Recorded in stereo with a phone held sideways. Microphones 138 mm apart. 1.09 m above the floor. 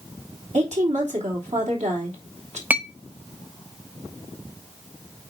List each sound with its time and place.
0.5 s a woman speaking: 65° right (ahead or behind), 3 m
2.7 s a clink: 10° right (ahead or behind), 0.7 m